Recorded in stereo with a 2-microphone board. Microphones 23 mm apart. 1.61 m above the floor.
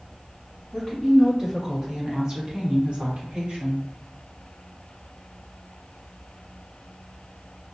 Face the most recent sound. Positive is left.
turn(degrees=-70)  # may be behind; listen again after turning